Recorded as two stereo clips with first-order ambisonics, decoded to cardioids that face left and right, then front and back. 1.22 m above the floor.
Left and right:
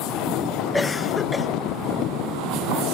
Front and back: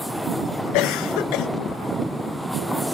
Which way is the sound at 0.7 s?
10° left.